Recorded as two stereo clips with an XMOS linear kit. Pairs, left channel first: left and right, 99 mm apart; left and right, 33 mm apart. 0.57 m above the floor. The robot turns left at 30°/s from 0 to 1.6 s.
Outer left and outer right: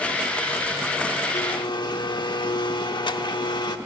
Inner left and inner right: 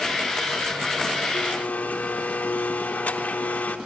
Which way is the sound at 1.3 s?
55° left (ahead or behind).